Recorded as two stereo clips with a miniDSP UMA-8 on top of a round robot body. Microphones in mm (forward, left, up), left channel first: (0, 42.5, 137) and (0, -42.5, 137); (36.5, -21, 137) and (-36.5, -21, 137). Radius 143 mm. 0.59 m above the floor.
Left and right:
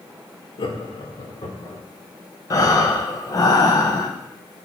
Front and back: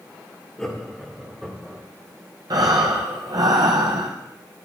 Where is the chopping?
I don't hear chopping.